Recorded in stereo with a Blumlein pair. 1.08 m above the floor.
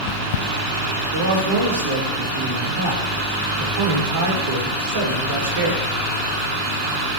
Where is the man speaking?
60° right, 4 m.